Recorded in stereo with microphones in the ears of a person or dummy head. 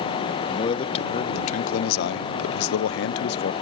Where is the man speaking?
35° left (ahead or behind); by 3.5 s 40° left (ahead or behind).